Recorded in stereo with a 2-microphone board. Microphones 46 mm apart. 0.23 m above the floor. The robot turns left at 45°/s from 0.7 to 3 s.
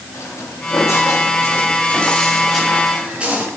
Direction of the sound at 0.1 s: 90° left.